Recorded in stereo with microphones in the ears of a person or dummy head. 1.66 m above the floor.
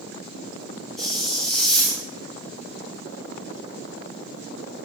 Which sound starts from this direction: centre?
A hiss, at 1.0 s.